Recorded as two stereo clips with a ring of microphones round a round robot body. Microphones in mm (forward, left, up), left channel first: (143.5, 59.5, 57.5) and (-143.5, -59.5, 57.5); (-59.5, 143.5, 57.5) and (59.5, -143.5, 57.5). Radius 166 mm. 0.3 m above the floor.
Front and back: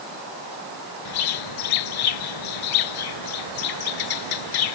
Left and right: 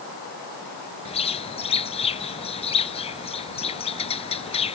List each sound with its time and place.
1.1 s a bird: 40° left